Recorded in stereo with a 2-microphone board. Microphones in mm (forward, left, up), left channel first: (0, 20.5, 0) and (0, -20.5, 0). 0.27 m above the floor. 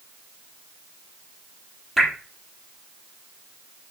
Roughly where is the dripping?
Centre.